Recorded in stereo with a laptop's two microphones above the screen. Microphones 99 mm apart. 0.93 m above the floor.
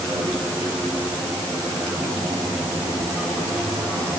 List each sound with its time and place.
Only background noise.